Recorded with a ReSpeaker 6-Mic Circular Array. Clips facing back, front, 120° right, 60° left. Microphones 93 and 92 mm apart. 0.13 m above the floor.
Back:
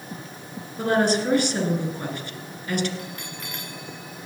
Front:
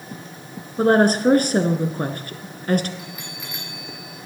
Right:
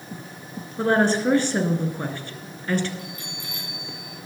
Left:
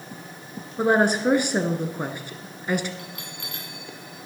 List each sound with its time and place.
0.8 s a woman speaking: 10° right, 1.6 m
3.0 s a bell: 85° left, 3.5 m